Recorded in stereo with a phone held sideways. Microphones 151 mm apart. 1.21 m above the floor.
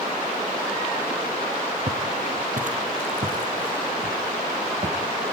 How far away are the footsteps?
About 2.5 m.